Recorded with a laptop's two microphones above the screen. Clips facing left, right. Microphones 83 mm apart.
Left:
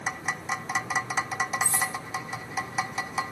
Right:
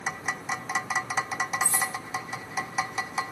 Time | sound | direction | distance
1.6 | cutlery clinking | 20° left (ahead or behind) | 0.9 m